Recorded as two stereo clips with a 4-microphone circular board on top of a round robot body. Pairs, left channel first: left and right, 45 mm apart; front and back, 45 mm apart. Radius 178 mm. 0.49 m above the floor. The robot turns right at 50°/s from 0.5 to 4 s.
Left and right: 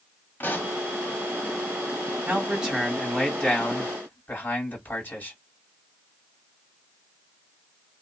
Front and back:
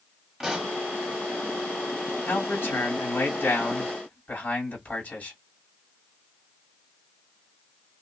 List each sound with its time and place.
0.4 s a pop: 105° left, 1.6 m; by 0.8 s 120° left, 1.6 m
2.3 s a man speaking: 40° right, 2 m; by 5.4 s 45° left, 2 m